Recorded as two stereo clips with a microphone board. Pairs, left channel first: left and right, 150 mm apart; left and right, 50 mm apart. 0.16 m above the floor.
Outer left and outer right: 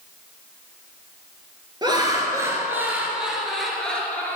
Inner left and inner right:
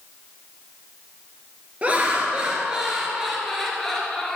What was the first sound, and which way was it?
Laughter, 30° right (ahead or behind).